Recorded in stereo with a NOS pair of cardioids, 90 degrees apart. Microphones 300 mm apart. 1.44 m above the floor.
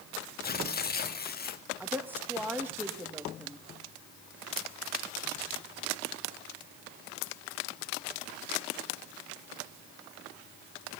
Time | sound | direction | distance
0.4 | tearing paper | 30° left | 1.9 m
1.8 | a woman speaking | 5° right | 2.5 m